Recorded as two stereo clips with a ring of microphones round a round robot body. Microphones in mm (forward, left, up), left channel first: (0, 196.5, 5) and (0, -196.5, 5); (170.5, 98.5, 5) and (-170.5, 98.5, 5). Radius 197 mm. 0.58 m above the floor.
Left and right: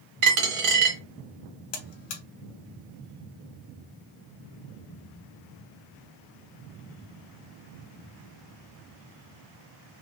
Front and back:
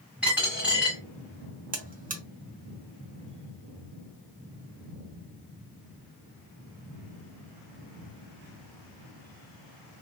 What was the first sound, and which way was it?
A dropped coin, 95° right.